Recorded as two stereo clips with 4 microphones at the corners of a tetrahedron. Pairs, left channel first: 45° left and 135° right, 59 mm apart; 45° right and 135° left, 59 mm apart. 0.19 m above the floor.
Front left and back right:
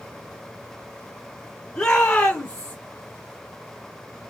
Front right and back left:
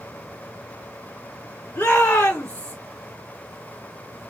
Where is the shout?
20° right, 1.4 m; by 2.8 s straight ahead, 1.7 m.